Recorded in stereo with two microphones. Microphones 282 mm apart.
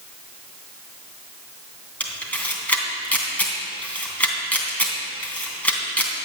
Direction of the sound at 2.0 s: 5° left (ahead or behind).